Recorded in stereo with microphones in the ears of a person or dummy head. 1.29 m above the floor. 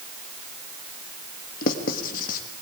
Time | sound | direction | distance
1.6 | writing | 50° left (ahead or behind) | 1.9 m